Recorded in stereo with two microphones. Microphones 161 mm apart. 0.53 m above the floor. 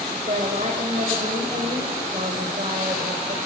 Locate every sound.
0.1 s a woman speaking: 50° right (ahead or behind), 3 m